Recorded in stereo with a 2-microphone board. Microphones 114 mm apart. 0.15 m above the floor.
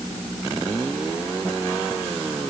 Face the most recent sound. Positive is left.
No sound to turn to.